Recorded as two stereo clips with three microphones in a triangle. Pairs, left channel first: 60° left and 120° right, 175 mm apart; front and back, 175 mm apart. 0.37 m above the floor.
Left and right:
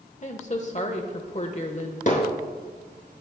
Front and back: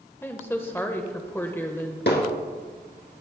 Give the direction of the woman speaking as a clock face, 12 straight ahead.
10 o'clock.